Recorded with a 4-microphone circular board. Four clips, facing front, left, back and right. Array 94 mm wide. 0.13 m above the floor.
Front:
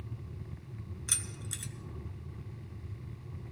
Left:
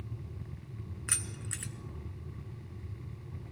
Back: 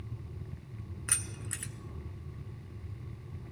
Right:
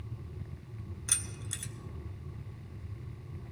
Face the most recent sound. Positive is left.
turn(degrees=145)